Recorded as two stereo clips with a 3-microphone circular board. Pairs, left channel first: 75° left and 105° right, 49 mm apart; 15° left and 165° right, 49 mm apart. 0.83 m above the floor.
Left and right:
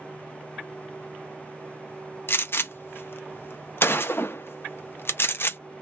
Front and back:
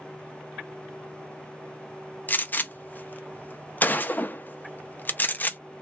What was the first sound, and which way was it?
A gunshot, 60° left.